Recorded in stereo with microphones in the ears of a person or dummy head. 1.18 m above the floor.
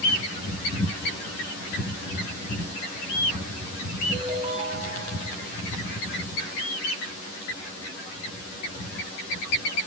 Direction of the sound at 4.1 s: 30° right (ahead or behind).